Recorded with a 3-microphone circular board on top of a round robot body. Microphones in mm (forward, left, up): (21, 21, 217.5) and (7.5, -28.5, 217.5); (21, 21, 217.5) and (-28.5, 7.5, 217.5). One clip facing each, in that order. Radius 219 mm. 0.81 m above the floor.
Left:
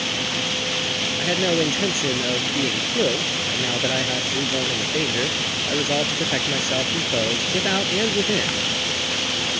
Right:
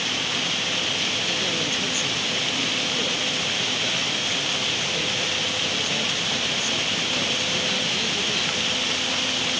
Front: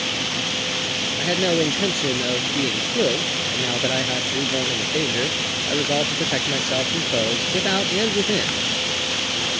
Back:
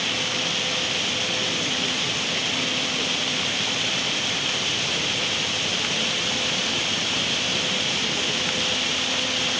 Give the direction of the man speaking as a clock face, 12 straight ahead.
11 o'clock.